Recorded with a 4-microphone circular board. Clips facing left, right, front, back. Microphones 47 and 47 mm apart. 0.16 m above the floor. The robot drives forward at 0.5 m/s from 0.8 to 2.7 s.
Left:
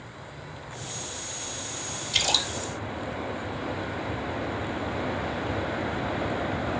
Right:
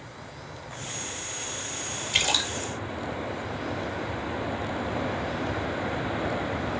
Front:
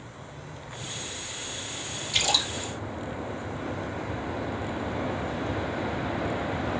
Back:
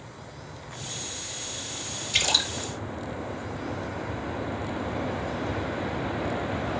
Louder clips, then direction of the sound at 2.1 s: Right 1 dB, back 1 dB; 130° right.